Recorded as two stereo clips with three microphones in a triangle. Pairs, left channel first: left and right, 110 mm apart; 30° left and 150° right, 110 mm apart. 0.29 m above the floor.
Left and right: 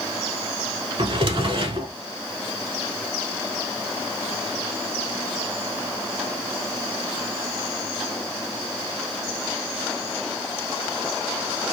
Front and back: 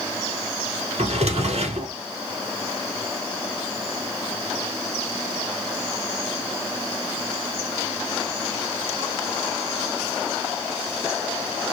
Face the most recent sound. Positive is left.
turn(degrees=-130)